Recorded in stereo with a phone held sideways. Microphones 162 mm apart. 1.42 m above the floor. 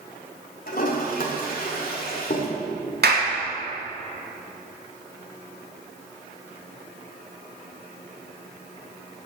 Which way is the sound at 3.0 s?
80° right.